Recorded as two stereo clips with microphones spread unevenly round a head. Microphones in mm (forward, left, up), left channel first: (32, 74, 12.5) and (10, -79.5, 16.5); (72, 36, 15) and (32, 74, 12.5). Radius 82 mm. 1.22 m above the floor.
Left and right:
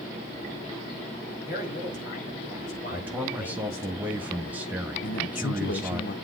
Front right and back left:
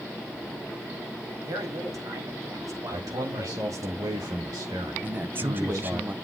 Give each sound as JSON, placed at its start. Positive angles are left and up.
{"t": 1.4, "sound": "a man speaking", "azimuth_deg": 130, "distance_m": 3.5}
{"t": 2.9, "sound": "a man speaking", "azimuth_deg": 180, "distance_m": 1.5}
{"t": 5.0, "sound": "a man speaking", "azimuth_deg": 95, "distance_m": 0.9}